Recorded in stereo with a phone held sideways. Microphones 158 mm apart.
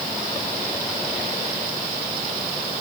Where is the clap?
No clap in this recording.